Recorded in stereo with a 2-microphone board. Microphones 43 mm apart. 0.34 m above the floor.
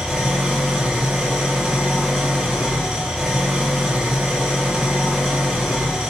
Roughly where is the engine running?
Centre.